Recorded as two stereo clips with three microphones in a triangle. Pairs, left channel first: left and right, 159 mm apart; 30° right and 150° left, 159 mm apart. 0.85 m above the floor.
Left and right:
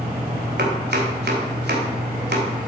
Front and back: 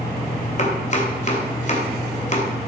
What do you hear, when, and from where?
0.6 s chopping: 75° right, 2.5 m